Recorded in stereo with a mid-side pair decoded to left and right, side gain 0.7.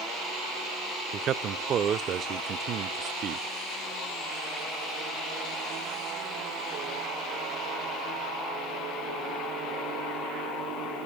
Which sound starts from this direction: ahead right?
A man speaking, at 1.1 s.